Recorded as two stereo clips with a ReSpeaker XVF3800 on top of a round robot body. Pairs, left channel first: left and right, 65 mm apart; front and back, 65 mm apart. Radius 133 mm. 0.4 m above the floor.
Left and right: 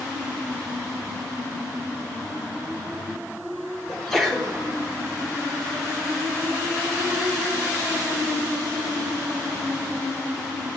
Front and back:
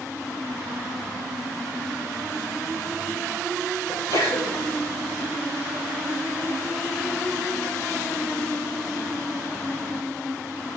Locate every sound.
3.9 s a sneeze: 5° left, 3 m